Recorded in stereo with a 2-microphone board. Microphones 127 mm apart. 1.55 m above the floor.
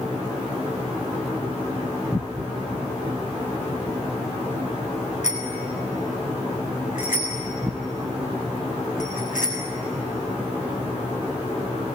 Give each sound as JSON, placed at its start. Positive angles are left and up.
{"t": 5.2, "sound": "a bicycle bell", "side_deg": 70, "distance_m": 6.5}